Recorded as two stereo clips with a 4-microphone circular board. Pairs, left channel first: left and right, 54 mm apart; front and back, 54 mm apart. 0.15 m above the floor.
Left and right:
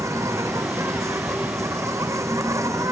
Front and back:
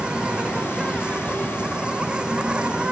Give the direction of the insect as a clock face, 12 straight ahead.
4 o'clock.